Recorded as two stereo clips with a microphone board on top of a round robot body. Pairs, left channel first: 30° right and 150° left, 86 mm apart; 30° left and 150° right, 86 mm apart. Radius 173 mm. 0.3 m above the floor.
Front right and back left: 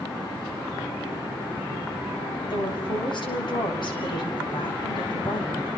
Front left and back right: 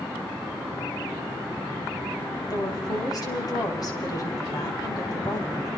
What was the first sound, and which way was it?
A woman speaking, 10° right.